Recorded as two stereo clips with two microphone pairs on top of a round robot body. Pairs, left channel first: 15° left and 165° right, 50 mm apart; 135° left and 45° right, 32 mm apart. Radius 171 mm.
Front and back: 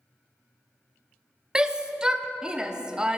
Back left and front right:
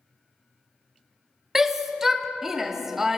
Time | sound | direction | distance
1.6 | a shout | 130° right | 1.1 m